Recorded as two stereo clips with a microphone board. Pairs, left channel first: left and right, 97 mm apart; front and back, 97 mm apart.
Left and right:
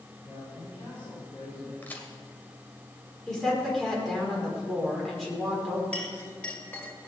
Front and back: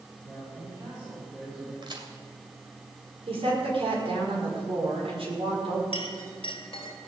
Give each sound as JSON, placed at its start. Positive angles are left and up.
{"t": 0.2, "sound": "a man speaking", "azimuth_deg": 125, "distance_m": 8.0}
{"t": 1.8, "sound": "a crack", "azimuth_deg": 160, "distance_m": 2.5}
{"t": 3.3, "sound": "a woman speaking", "azimuth_deg": 175, "distance_m": 5.5}
{"t": 5.9, "sound": "a clink", "azimuth_deg": 15, "distance_m": 2.5}